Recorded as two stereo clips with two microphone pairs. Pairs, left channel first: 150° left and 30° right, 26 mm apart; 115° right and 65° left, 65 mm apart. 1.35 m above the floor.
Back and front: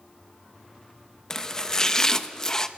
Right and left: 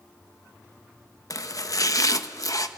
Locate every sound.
1.3 s chopping: 145° right, 1.0 m